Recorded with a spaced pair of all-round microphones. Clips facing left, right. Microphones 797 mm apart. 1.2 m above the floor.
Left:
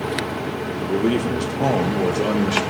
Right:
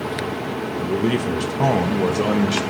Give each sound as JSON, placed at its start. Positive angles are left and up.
{"t": 0.8, "sound": "a man speaking", "side_deg": -35, "distance_m": 0.9}